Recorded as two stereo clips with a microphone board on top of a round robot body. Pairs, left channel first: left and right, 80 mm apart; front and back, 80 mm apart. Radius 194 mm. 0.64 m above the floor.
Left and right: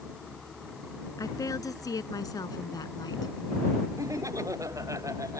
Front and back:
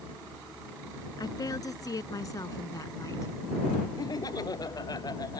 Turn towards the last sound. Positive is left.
turn(degrees=-40)